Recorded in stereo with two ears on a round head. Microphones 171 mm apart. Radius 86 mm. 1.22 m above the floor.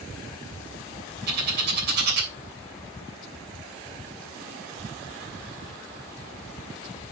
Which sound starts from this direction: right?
A bird, at 1.3 s.